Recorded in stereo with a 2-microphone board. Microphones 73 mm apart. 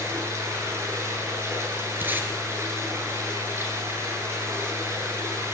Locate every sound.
0.0 s running water: 40° right (ahead or behind), 9 m
2.0 s tape being pulled: 30° right (ahead or behind), 4 m